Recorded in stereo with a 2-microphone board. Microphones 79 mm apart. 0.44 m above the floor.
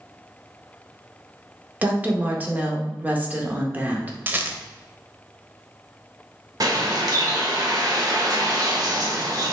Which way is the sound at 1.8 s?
20° right (ahead or behind).